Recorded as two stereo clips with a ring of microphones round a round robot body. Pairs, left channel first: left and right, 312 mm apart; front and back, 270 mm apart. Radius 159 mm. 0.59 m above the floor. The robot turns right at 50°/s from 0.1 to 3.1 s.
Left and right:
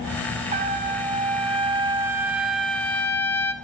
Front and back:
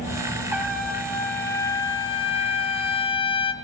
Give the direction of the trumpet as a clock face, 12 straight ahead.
4 o'clock.